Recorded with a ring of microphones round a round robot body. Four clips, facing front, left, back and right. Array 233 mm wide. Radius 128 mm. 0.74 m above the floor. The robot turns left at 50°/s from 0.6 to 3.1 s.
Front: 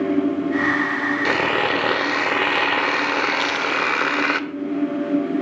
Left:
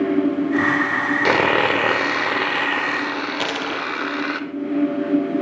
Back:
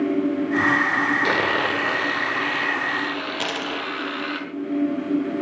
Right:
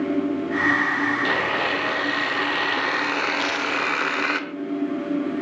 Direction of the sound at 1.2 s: 90° left.